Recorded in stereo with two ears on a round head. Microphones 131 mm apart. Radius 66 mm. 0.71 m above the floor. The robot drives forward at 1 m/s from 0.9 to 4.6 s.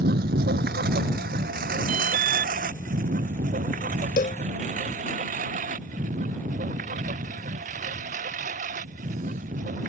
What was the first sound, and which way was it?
A lawn mower, 80° right.